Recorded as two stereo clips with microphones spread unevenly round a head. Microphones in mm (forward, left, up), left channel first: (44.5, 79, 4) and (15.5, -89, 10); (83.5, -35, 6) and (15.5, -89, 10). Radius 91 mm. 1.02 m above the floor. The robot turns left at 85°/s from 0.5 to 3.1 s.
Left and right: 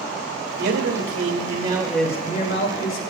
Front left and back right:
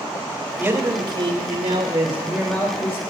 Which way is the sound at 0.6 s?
75° right.